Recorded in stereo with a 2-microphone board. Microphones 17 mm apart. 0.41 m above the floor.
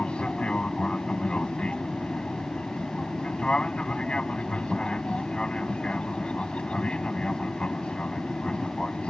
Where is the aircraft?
65° left (ahead or behind); by 9.1 s 60° left (ahead or behind).